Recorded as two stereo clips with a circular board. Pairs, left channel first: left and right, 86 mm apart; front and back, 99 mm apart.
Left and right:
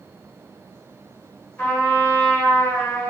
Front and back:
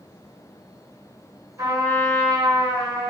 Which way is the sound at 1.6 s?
145° left.